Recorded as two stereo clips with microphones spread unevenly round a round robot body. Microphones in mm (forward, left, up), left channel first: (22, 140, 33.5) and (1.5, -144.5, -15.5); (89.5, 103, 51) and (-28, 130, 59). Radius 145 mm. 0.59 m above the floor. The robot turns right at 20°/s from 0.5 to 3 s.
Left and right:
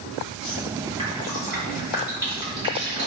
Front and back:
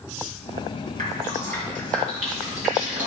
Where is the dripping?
160° left, 3 m; by 3.1 s 160° right, 3 m.